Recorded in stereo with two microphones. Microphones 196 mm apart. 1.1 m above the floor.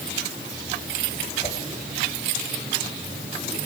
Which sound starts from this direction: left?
A whoosh, at 1.4 s.